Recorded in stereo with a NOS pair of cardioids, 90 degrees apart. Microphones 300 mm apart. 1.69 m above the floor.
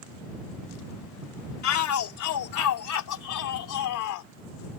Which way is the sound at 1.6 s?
60° left.